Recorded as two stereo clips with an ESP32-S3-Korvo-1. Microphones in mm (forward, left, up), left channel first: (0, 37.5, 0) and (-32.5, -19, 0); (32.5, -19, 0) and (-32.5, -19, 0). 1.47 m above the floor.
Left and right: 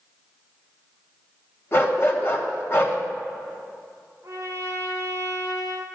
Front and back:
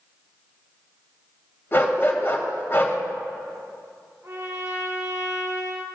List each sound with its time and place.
1.7 s a dog barking: 40° left, 1.6 m
4.2 s a trumpet: 155° right, 2.5 m